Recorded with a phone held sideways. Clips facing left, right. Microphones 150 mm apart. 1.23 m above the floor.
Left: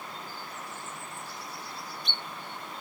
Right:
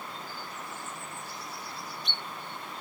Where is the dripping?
I don't hear dripping.